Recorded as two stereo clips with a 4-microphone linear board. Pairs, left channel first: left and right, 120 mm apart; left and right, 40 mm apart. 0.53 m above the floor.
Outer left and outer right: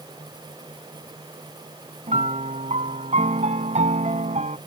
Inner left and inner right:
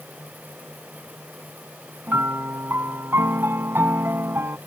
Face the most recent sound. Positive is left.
turn(degrees=-70)  # may be behind; listen again after turning